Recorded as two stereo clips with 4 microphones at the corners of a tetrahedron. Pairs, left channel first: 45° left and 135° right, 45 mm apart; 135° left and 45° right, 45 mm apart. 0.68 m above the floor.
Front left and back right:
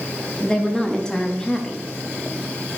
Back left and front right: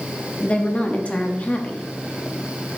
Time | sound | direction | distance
0.4 | a woman speaking | 105° left | 0.9 m